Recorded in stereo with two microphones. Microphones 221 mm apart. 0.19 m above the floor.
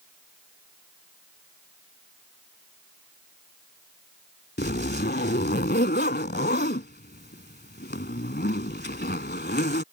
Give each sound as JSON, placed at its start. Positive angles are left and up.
{"t": 4.6, "sound": "a zipper", "side_deg": 50}